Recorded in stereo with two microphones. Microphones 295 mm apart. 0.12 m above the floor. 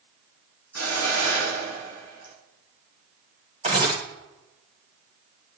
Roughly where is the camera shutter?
Right.